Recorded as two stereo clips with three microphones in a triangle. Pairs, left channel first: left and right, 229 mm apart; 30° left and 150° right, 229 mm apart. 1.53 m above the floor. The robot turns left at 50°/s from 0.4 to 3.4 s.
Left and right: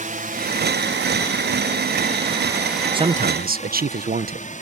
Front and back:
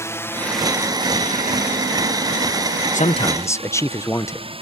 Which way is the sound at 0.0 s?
45° right.